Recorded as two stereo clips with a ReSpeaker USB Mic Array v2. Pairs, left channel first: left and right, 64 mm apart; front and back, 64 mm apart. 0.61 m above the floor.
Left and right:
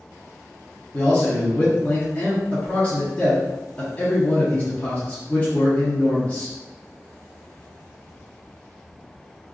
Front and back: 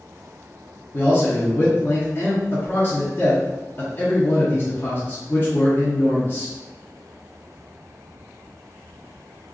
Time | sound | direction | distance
0.9 | a man speaking | 35° left | 0.8 m